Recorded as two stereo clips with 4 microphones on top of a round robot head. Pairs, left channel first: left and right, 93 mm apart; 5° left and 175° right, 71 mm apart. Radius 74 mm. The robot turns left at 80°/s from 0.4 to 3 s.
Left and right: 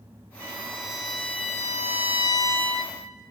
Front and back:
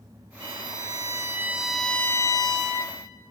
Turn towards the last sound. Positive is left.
turn(degrees=-10)